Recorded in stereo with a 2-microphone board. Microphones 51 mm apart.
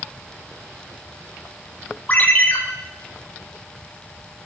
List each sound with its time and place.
2.1 s a ringtone: 35° left (ahead or behind), 3 m